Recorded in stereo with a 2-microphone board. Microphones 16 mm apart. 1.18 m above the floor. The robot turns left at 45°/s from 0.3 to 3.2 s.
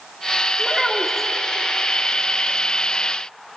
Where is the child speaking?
155° right, 2.0 m; by 1.3 s 170° left, 2.0 m.